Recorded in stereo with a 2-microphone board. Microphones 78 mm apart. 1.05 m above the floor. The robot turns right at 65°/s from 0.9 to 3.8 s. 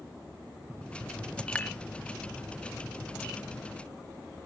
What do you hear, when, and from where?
1.6 s dishes clattering: 15° left (ahead or behind); by 1.7 s 30° left (ahead or behind)